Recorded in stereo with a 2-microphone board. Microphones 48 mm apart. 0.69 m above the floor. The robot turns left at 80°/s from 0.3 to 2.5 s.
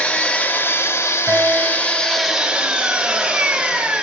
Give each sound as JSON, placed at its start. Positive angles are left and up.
{"t": 0.0, "sound": "an engine running", "azimuth_deg": 150, "distance_m": 0.8}
{"t": 1.3, "sound": "a guitar", "azimuth_deg": -35, "distance_m": 0.6}